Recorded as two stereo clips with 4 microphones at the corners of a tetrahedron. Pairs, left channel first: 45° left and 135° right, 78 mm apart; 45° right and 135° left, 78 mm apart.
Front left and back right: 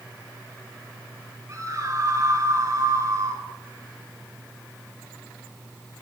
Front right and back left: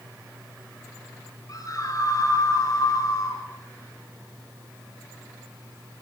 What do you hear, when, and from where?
1.5 s a scream: 85° right, 7.5 m